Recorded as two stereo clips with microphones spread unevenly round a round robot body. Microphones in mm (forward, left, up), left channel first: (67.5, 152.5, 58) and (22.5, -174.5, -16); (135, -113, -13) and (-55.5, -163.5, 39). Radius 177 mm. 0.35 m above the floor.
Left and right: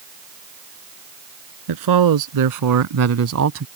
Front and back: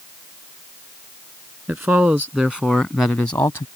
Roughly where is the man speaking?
Right.